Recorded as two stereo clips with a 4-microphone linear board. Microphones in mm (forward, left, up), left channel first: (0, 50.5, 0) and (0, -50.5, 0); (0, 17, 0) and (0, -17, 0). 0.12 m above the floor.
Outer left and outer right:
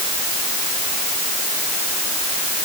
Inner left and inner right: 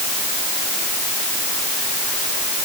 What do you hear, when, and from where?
Only background noise.